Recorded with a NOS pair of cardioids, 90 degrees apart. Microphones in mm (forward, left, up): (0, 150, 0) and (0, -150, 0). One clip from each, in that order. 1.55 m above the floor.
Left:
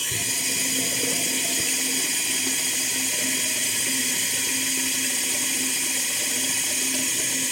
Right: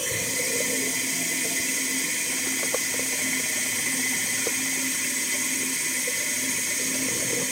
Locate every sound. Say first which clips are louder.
0.0 s running water: left 1 dB; 20° left, 6.5 m